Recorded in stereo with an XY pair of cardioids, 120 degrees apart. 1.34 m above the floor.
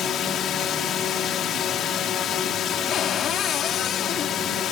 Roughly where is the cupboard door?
Ahead left.